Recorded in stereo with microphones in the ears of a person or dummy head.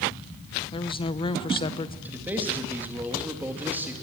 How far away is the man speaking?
About 2.5 m.